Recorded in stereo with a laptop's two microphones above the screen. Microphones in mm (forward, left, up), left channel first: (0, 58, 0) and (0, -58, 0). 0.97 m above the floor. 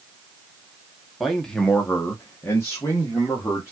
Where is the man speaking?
Centre (ahead or behind), 0.8 m; by 3.7 s 25° left (ahead or behind), 1.5 m.